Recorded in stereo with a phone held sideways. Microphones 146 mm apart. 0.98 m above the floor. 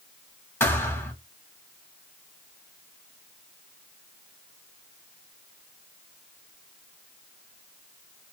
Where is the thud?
15° left (ahead or behind), 1.1 m.